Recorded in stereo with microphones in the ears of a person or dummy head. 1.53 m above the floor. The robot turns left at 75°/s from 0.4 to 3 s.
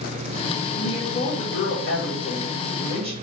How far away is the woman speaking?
About 1.8 m.